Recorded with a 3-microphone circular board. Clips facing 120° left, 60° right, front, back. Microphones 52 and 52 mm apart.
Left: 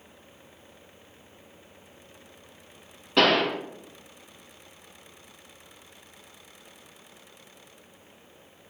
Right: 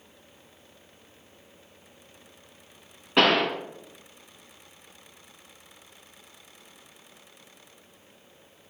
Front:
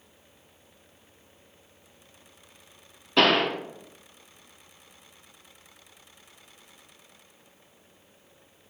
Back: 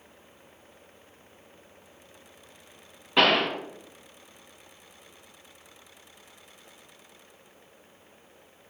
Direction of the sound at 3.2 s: 120° right.